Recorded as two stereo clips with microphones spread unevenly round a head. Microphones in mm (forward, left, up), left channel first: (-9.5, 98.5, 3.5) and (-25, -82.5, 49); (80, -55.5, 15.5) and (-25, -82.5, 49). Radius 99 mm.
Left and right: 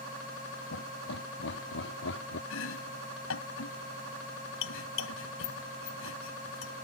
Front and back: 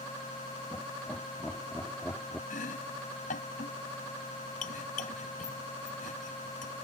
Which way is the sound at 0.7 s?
100° left.